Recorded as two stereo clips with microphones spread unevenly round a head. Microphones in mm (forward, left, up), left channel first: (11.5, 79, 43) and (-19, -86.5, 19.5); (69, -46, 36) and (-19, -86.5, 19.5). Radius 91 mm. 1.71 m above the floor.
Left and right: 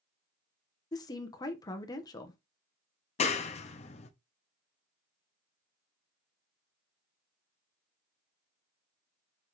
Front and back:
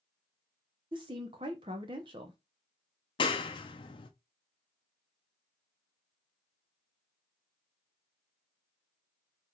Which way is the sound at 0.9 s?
150° left.